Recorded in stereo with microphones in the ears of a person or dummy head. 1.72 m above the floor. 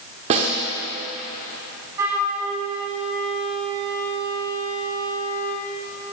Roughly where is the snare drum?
Right.